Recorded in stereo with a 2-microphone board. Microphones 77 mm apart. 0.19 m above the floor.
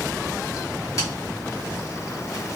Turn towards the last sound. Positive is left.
turn(degrees=45)  # may be behind; listen again after turning